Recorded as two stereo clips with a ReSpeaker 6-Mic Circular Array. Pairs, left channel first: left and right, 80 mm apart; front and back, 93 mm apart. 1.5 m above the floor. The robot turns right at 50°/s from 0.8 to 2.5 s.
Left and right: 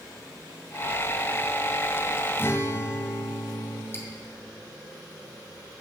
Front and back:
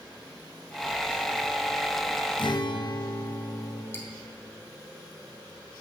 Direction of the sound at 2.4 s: 25° left.